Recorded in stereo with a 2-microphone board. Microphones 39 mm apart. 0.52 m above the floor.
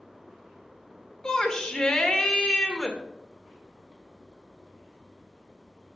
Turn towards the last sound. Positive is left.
turn(degrees=20)  # may be behind; listen again after turning